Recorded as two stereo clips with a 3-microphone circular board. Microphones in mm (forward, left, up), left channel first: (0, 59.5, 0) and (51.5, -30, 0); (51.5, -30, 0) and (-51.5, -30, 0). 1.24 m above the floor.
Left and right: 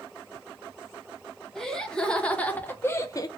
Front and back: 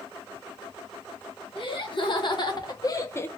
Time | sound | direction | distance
1.6 | laughter | 35° left | 1.5 m